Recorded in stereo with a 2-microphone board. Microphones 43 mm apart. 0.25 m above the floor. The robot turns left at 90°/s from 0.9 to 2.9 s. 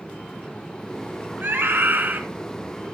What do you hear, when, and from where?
1.4 s a scream: 60° right, 2 m; by 2.2 s 135° right, 2 m